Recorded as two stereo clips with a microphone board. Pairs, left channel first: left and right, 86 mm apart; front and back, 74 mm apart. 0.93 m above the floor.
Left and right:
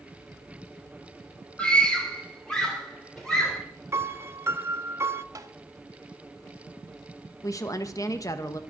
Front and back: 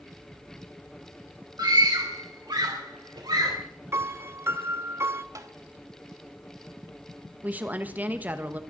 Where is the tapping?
140° right, 1.2 m.